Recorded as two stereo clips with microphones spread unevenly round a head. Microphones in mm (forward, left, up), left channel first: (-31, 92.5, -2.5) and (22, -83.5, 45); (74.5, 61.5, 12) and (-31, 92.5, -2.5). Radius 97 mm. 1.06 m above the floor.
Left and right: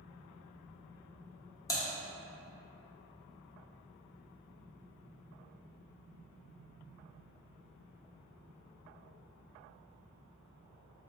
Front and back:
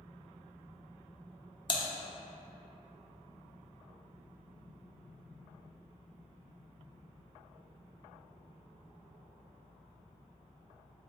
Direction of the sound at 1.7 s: 25° left.